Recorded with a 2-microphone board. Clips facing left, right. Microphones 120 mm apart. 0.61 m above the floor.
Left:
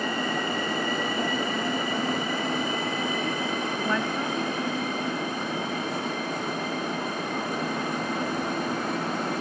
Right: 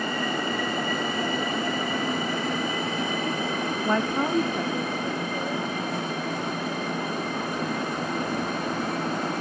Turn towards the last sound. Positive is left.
turn(degrees=-70)  # may be behind; listen again after turning